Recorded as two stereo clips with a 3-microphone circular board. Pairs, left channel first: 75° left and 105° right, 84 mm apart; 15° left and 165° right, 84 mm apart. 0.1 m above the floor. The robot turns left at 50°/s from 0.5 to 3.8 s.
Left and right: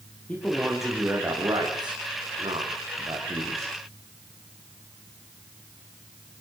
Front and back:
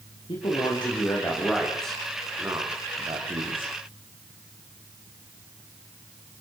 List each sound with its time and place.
0.3 s a man speaking: straight ahead, 9 m; by 3.8 s 160° right, 9 m